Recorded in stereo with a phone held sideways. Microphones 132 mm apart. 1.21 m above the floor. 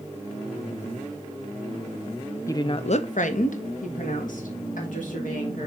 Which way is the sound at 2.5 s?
20° left (ahead or behind).